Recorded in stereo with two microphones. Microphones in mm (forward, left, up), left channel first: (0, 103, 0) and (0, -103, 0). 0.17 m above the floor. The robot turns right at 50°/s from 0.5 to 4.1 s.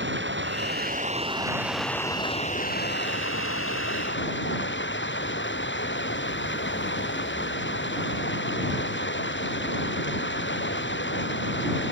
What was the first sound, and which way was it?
Running water, 65° right.